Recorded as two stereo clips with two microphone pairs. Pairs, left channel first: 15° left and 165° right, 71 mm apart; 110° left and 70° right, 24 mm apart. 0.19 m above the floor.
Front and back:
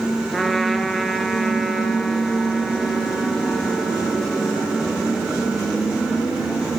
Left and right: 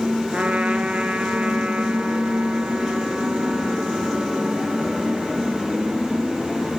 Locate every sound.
0.3 s a trumpet: 70° right, 1.9 m